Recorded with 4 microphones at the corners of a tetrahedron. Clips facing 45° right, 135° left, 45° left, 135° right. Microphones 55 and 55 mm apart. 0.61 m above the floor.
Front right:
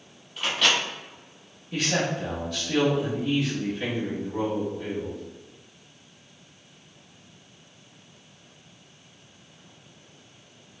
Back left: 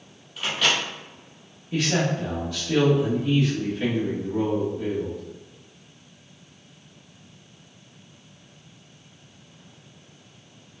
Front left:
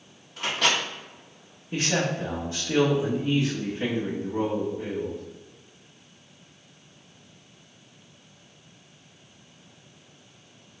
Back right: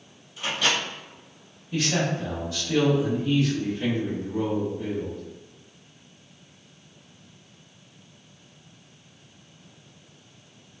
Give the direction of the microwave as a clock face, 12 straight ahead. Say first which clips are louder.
Even, front left 1 dB; 10 o'clock.